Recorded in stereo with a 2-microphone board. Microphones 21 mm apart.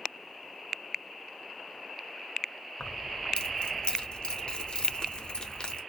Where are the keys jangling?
40° left (ahead or behind), 0.6 m.